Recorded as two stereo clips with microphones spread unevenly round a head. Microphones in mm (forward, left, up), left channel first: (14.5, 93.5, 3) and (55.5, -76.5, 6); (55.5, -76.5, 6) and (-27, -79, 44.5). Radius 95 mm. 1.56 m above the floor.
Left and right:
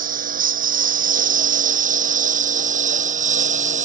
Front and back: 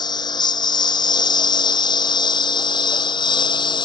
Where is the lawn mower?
35° right; by 3.9 s 30° right.